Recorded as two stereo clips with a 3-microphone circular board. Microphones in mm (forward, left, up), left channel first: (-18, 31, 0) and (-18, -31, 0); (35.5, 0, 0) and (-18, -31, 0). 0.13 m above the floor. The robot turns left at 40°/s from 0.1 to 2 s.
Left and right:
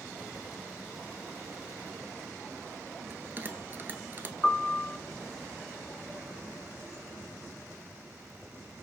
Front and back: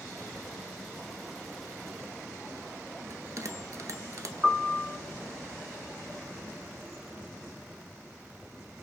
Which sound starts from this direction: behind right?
A bell, at 3.1 s.